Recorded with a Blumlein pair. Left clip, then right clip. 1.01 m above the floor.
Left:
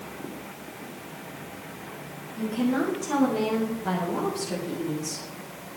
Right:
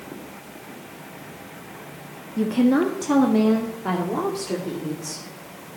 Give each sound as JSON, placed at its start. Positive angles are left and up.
{"t": 2.4, "sound": "a woman speaking", "azimuth_deg": -55, "distance_m": 1.5}